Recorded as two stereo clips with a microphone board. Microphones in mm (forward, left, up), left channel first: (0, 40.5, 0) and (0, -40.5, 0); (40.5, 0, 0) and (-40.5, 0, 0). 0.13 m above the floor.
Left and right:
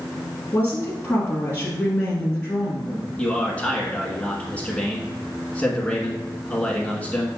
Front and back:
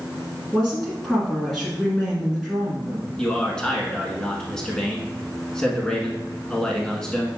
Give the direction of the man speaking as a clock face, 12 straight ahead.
10 o'clock.